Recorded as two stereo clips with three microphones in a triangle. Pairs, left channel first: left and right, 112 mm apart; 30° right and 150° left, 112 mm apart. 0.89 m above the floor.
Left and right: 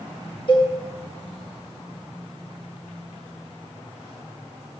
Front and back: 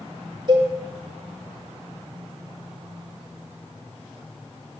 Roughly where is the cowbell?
Behind left.